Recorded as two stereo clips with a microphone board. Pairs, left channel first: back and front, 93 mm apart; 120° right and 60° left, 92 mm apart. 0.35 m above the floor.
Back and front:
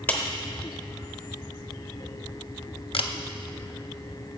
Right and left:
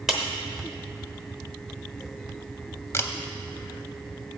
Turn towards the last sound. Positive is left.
turn(degrees=180)